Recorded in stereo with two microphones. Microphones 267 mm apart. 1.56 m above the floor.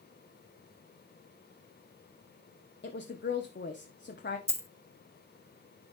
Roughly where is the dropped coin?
Centre.